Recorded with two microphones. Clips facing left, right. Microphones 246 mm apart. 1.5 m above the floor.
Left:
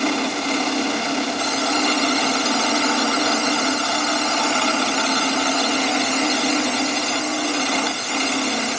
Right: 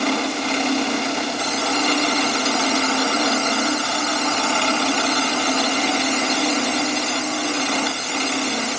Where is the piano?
I don't hear a piano.